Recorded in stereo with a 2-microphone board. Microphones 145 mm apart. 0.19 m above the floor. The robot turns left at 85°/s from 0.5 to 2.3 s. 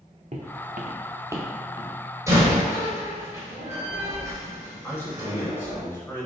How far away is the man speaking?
About 1.5 m.